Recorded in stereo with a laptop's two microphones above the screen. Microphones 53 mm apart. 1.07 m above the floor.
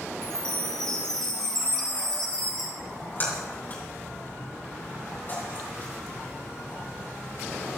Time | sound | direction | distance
0.2 | a chime | 15° left (ahead or behind) | 2.5 m
2.8 | a splash | 35° left (ahead or behind) | 6 m